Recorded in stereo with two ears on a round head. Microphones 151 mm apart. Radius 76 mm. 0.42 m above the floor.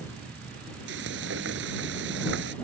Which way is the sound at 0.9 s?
75° right (ahead or behind).